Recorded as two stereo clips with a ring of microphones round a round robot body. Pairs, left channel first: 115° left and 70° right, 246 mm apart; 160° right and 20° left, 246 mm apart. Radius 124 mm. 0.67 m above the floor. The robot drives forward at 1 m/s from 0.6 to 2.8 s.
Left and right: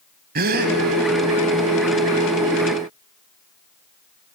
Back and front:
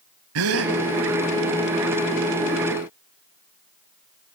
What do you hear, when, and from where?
0.3 s a gasp: 15° right, 1.5 m